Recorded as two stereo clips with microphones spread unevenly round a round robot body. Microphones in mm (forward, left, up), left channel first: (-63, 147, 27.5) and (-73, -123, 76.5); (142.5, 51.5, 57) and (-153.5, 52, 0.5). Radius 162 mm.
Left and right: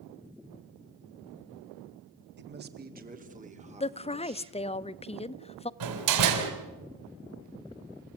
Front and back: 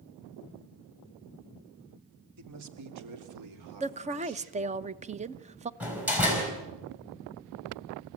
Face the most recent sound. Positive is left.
turn(degrees=-95)